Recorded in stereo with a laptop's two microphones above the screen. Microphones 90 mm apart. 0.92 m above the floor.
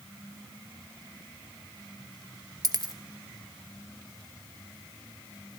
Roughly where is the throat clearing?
I don't hear throat clearing.